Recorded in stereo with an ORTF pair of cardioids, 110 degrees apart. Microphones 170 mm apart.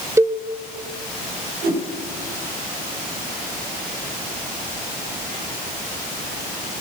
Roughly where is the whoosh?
Ahead right.